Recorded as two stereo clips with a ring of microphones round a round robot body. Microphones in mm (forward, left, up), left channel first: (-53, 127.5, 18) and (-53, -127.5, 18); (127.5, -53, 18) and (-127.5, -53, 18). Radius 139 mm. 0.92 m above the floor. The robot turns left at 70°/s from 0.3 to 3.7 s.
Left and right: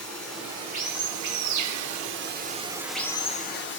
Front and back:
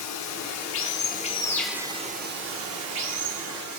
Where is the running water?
5° left, 0.8 m; by 3.8 s 125° left, 0.8 m.